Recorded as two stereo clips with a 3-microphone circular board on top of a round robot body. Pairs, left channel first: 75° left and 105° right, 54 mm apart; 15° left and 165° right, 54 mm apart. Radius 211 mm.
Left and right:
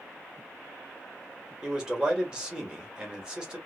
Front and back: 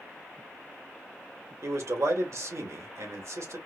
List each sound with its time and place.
1.6 s a man speaking: 175° right, 2.5 m